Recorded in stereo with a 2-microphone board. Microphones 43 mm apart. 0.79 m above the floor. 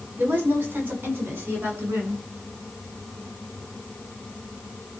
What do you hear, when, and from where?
0.2 s a woman speaking: 35° right (ahead or behind), 7.5 m; by 2.2 s 50° right (ahead or behind), 10.5 m